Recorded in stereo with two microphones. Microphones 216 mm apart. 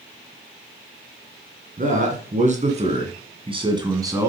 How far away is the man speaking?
About 2.5 m.